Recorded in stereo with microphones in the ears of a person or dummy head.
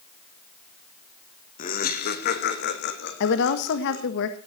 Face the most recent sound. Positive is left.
turn(degrees=65)  # may be behind; listen again after turning